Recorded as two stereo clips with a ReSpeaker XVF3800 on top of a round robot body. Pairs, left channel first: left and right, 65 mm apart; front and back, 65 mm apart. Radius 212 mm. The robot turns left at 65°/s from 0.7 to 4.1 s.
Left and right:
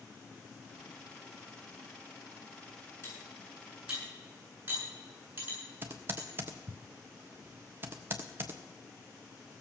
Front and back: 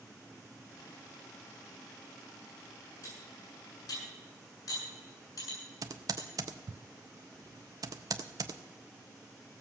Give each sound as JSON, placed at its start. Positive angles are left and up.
{"t": 3.0, "sound": "cutlery clinking", "azimuth_deg": 45, "distance_m": 8.0}
{"t": 5.8, "sound": "typing on a keyboard", "azimuth_deg": -150, "distance_m": 0.6}